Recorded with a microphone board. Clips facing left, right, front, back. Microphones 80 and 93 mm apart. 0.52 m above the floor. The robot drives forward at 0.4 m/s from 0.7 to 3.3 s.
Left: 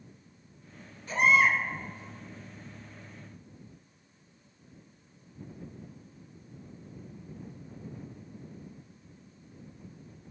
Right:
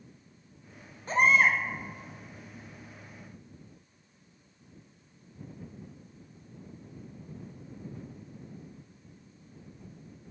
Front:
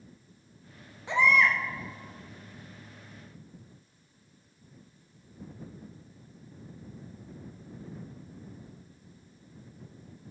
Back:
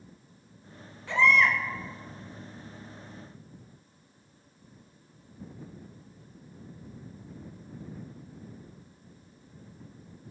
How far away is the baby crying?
About 0.5 m.